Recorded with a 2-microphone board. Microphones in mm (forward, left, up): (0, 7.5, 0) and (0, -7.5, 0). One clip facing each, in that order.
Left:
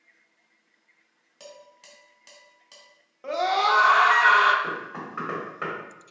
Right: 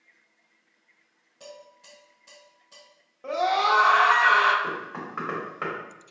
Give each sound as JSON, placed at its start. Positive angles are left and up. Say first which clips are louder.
{"t": 1.4, "sound": "dishes clattering", "louder": "right 1 dB", "side_deg": 55, "distance_m": 1.8}
{"t": 3.2, "sound": "a scream", "louder": "even", "side_deg": 20, "distance_m": 0.7}
{"t": 4.6, "sound": "knocking", "louder": "even", "side_deg": -5, "distance_m": 1.6}